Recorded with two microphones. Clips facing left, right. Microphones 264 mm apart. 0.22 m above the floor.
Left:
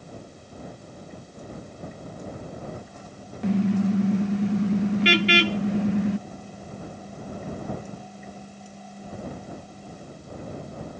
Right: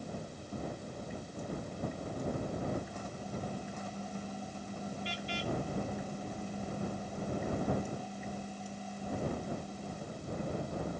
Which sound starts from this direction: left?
A car horn, at 3.4 s.